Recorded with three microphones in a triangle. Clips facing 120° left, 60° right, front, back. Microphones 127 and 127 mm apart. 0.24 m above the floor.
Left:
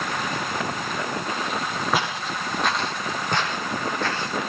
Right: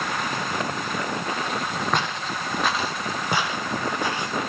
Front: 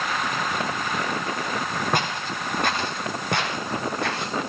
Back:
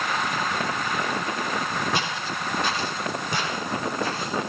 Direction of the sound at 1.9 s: 35° left.